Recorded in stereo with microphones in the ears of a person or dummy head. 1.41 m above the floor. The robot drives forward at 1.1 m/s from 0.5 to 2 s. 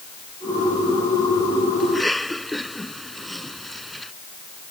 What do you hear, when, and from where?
1.8 s a cough: centre (ahead or behind)